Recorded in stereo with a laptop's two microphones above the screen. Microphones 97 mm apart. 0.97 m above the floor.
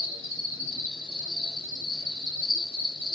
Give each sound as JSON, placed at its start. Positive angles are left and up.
{"t": 0.0, "sound": "an insect", "side_deg": 30, "distance_m": 4.5}